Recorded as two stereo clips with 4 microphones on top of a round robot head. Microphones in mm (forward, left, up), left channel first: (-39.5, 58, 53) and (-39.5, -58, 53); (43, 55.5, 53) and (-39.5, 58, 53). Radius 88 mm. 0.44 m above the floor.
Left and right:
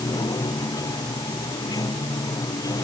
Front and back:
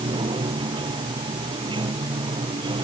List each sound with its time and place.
0.0 s running water: 150° left